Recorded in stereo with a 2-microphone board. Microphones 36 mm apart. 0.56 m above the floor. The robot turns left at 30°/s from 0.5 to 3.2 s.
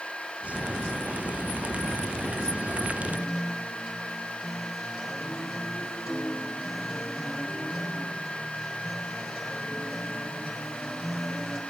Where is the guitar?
Centre (ahead or behind), 3 m; by 11.6 s 5° left (ahead or behind), 3 m.